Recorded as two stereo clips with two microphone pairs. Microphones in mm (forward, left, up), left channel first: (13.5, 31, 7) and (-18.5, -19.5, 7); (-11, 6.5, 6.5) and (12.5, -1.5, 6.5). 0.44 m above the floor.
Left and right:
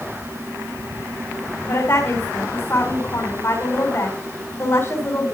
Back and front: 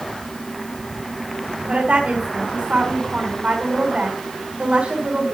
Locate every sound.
1.7 s a woman speaking: 20° left, 3.5 m